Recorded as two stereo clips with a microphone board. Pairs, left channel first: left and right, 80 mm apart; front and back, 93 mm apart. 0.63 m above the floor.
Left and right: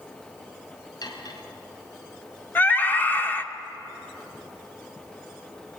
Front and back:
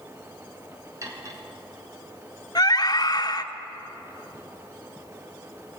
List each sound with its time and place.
1.0 s cutlery clinking: 125° left, 4 m
2.5 s a scream: 25° left, 1.8 m